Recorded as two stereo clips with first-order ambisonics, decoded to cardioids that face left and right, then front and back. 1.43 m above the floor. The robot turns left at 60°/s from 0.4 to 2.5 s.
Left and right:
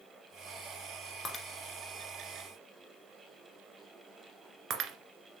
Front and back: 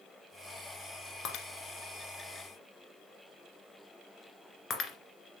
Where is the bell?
No bell in this recording.